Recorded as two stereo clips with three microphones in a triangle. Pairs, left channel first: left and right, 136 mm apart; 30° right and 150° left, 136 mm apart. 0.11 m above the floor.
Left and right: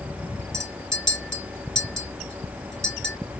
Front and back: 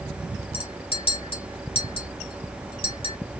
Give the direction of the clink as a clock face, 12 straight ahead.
12 o'clock.